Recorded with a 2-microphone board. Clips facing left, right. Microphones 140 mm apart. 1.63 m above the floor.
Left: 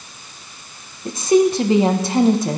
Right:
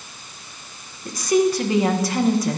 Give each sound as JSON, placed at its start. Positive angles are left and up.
{"t": 1.1, "sound": "a woman speaking", "side_deg": 25, "distance_m": 1.2}